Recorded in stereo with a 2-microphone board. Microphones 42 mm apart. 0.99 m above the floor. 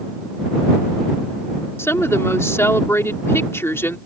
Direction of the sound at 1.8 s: 80° left.